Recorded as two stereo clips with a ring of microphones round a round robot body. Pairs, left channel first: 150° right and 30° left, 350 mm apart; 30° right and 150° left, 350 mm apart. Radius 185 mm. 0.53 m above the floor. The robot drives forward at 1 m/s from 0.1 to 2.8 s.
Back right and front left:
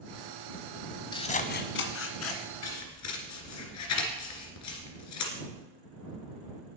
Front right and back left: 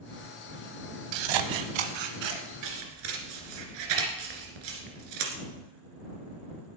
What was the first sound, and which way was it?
Scissors, 130° left.